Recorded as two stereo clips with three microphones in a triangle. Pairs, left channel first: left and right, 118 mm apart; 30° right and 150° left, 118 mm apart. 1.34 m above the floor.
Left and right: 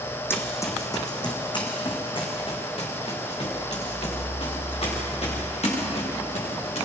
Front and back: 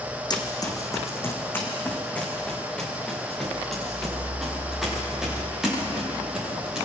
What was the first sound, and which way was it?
Running footsteps, 20° left.